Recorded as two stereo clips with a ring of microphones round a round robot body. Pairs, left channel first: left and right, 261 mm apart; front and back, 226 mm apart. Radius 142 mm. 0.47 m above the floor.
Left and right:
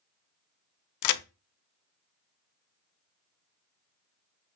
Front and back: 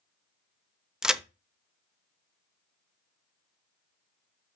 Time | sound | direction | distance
1.0 | a crack | 95° left | 0.7 m